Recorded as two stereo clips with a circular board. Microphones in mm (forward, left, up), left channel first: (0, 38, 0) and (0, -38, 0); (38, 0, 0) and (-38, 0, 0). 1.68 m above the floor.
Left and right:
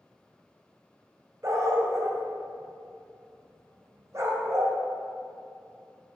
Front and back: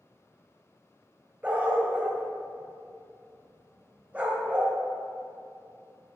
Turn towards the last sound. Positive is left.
turn(degrees=-115)